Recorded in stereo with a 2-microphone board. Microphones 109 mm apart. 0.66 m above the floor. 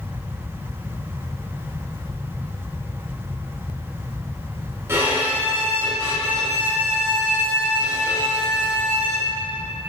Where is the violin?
20° right (ahead or behind), 2.5 m.